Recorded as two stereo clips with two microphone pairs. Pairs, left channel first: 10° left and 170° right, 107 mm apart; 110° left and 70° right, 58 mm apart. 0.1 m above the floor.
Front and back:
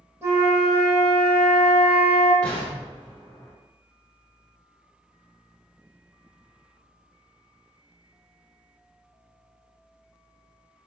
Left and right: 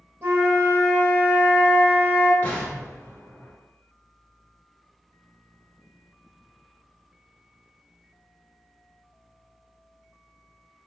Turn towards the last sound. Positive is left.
turn(degrees=85)